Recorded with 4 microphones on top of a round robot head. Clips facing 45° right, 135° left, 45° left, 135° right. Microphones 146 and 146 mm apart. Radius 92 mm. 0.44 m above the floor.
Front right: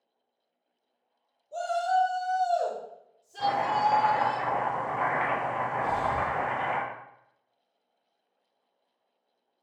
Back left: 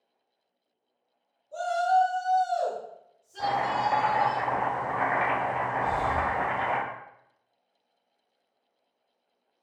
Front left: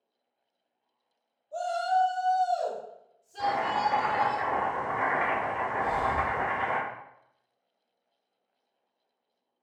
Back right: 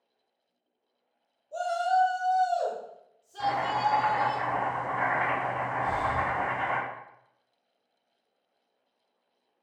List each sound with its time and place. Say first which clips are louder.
1.5 s a shout: back left 2 dB, back right 1 dB; 90° right, 1.4 m; by 4.4 s 5° right, 1.7 m
3.4 s chopping: front right 1 dB, even; 15° left, 1.6 m
5.8 s breathing: even, front left 1 dB; 5° right, 1.0 m